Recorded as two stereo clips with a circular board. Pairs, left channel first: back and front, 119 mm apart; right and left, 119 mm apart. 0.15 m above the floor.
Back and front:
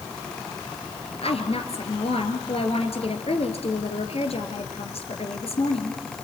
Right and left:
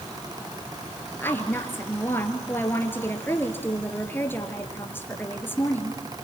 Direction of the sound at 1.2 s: 160° right.